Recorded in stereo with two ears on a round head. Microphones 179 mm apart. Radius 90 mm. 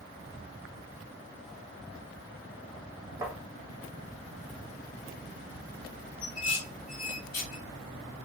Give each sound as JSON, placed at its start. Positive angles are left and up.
{"t": 3.2, "sound": "tapping", "side_deg": -10, "distance_m": 1.1}
{"t": 6.2, "sound": "dishes clattering", "side_deg": 65, "distance_m": 2.0}